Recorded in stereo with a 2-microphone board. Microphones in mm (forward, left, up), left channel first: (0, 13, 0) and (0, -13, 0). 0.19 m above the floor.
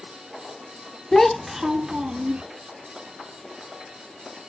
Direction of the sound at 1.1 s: 25° left (ahead or behind).